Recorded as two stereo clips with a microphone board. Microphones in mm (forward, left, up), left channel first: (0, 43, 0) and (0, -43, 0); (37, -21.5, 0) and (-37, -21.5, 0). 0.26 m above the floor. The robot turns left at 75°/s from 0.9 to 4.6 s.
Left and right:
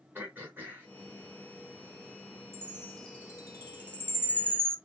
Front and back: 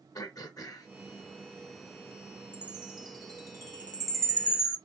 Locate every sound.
0.1 s throat clearing: 25° right, 2 m
2.5 s a chime: 150° right, 1.4 m; by 4.8 s 55° left, 1.4 m